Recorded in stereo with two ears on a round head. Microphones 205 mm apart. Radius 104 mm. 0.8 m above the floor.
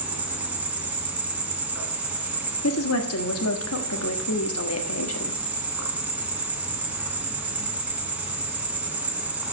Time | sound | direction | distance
0.0 | an insect | 5° right (ahead or behind) | 1.8 m
2.6 | a woman speaking | 65° left (ahead or behind) | 1.3 m